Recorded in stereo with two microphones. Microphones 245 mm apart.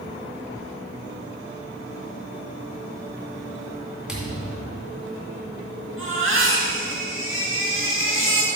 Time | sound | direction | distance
4.1 | a thud | centre (ahead or behind) | 2.5 m
6.0 | a baby crying | 55° right (ahead or behind) | 4 m